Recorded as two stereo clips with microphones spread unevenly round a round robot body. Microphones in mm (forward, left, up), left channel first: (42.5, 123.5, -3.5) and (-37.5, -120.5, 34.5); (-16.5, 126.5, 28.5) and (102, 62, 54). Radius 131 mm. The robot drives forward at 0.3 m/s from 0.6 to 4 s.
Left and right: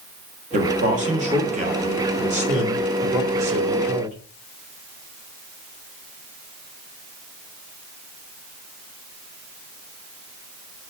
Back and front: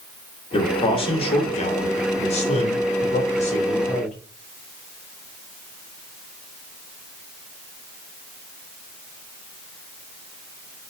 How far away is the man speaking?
About 1.3 m.